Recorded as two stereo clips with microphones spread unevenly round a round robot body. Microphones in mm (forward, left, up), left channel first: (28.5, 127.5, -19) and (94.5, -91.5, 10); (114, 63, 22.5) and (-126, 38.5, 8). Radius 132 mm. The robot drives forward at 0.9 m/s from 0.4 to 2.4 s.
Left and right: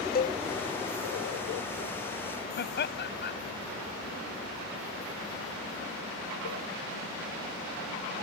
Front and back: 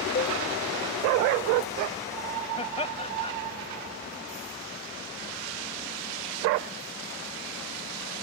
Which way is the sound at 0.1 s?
60° left.